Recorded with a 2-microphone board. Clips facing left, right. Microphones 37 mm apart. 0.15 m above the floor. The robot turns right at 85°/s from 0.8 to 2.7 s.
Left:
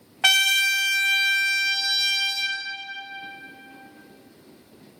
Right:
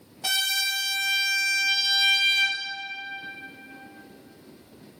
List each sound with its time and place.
0.2 s a trumpet: 100° left, 0.8 m; by 2.6 s 110° right, 0.8 m